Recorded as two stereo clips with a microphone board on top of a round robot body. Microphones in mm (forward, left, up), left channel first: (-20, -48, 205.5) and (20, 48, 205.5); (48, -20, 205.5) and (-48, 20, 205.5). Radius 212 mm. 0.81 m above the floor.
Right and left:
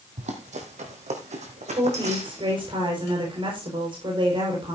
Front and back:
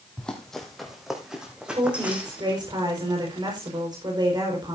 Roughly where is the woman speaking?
Left.